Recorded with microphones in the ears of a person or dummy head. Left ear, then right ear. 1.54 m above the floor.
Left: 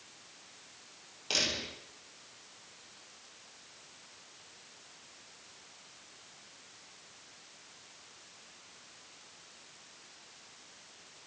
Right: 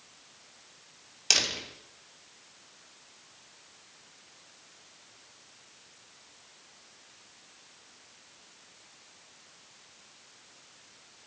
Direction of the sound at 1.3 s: 70° right (ahead or behind).